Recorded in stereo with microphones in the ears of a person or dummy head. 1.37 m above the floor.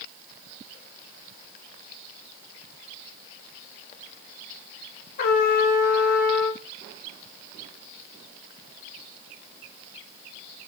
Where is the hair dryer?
I don't hear a hair dryer.